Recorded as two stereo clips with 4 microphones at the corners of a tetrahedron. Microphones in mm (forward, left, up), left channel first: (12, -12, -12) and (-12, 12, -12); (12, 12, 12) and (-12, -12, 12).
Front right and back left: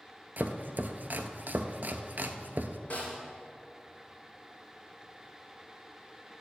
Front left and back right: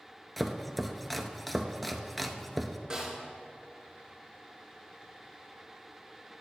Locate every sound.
0.4 s chopping: 135° left, 0.5 m
2.9 s a snare drum: 70° right, 3 m